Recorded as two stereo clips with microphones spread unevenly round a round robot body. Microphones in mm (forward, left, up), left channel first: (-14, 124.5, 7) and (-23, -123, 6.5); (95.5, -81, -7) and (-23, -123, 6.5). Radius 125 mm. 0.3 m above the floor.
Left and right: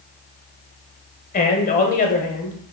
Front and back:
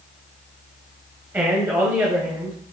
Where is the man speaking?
125° left, 1.3 m.